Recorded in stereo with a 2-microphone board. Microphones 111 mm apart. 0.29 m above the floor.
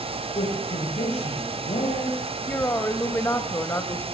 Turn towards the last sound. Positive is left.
turn(degrees=20)  # may be behind; listen again after turning